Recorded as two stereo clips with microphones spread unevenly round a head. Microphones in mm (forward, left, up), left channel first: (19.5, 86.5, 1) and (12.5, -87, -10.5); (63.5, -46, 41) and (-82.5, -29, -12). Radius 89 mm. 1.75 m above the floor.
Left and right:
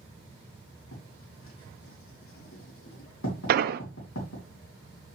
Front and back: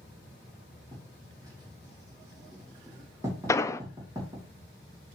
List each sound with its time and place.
0.9 s writing: 100° left, 2.5 m
3.5 s an explosion: 60° right, 0.5 m